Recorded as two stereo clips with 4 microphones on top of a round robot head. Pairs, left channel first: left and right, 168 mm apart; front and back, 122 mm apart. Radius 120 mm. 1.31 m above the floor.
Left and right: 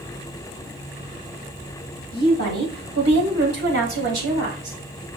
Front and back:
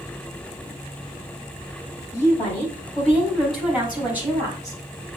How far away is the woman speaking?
About 4 m.